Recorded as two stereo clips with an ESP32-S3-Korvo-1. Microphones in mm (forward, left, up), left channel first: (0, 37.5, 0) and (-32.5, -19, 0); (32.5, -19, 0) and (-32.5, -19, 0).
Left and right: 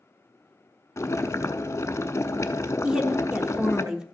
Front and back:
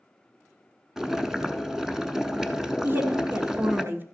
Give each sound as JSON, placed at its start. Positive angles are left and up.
{"t": 1.0, "sound": "boiling", "azimuth_deg": 100, "distance_m": 0.7}
{"t": 2.8, "sound": "a woman speaking", "azimuth_deg": 170, "distance_m": 1.2}